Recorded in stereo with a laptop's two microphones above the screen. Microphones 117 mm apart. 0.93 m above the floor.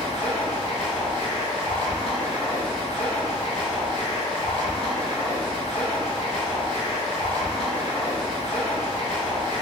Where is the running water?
65° left (ahead or behind), 1.4 m.